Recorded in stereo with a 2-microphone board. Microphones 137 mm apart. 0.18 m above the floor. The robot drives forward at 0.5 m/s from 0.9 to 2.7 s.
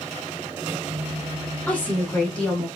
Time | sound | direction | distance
1.7 | a woman speaking | 15° left (ahead or behind) | 1.1 m